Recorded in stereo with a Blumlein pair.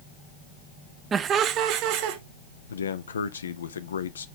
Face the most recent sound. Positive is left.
turn(degrees=70)